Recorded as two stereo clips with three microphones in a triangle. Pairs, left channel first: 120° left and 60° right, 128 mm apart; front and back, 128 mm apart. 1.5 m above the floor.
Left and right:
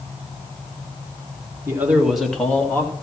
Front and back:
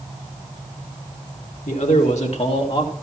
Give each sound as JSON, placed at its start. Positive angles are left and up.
{"t": 1.7, "sound": "a man speaking", "azimuth_deg": 10, "distance_m": 1.9}